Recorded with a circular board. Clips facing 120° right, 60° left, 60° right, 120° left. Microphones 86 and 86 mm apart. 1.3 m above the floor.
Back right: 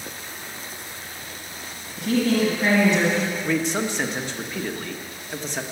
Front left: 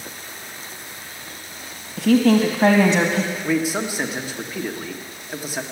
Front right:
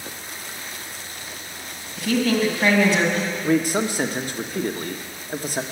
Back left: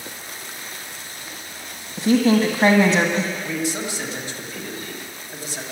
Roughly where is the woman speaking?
Ahead left.